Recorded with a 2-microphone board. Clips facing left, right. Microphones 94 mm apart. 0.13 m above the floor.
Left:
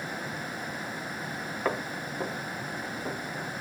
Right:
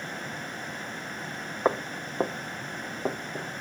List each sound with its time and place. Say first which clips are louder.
1.6 s footsteps: right 5 dB; 30° right (ahead or behind), 0.9 m; by 3.5 s 80° right, 2 m